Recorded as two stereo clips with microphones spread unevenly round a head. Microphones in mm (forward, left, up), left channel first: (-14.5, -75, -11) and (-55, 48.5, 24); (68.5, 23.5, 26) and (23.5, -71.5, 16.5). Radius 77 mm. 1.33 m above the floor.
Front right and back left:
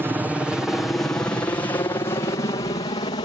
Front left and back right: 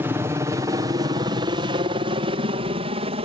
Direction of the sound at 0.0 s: 165° right.